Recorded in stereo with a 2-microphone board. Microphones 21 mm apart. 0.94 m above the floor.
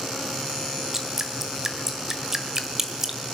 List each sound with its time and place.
0.9 s dripping: 20° right (ahead or behind), 1.3 m